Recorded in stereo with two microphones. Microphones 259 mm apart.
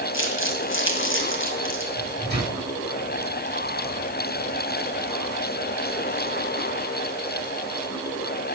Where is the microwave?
40° right (ahead or behind), 5.5 m.